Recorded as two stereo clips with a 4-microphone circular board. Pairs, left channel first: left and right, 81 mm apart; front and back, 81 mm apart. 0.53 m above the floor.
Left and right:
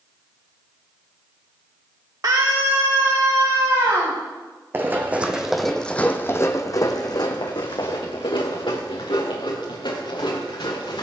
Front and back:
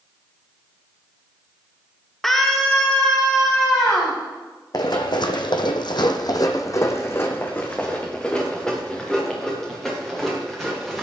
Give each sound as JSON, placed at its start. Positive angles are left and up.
{"t": 2.2, "sound": "a scream", "azimuth_deg": -85, "distance_m": 0.9}
{"t": 4.7, "sound": "running footsteps", "azimuth_deg": -30, "distance_m": 1.7}